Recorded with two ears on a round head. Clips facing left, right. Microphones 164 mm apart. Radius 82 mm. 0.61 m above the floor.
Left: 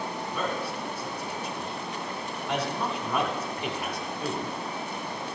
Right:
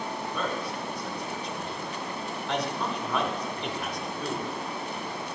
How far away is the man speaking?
About 2.5 m.